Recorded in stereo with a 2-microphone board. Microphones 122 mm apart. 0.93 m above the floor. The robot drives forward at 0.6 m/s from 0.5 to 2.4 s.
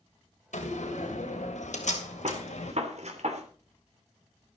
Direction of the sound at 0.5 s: 85° left.